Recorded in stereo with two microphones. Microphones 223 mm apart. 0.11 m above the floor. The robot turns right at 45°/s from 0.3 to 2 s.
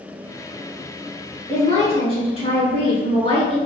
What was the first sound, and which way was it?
A woman speaking, 30° left (ahead or behind).